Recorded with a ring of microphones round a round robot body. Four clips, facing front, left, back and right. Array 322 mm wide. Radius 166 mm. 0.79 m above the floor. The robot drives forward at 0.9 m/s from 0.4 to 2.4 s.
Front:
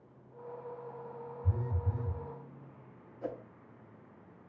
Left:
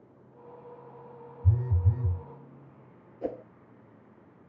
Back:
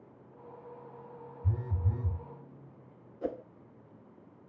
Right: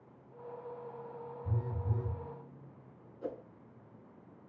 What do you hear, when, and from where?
1.4 s a phone buzzing: 120° left, 1.5 m; by 2.2 s 140° left, 1.9 m
3.2 s a whoosh: 125° left, 0.6 m